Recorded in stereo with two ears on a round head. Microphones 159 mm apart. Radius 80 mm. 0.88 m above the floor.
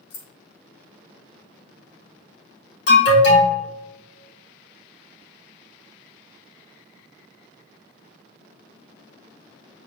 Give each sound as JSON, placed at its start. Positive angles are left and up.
{"t": 0.1, "sound": "keys jangling", "side_deg": 70, "distance_m": 1.9}
{"t": 2.9, "sound": "an alarm", "side_deg": 65, "distance_m": 3.5}